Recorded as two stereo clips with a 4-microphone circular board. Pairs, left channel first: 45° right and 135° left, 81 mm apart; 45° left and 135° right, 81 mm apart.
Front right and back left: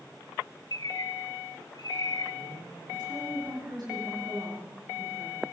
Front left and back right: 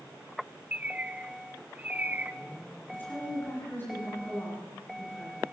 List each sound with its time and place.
0.7 s a bird: 70° right, 0.5 m
2.9 s a woman speaking: 110° left, 9 m